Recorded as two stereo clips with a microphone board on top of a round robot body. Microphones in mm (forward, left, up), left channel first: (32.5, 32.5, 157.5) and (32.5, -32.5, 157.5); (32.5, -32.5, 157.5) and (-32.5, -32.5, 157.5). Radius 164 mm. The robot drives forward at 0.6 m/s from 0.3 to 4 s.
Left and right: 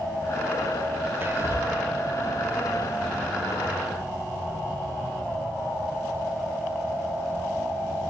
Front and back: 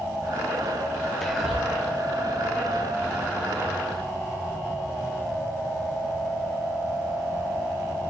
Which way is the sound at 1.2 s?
80° right.